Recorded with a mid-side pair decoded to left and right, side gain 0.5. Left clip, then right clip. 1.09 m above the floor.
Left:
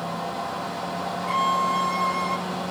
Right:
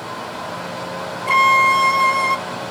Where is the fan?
70° right, 6 m.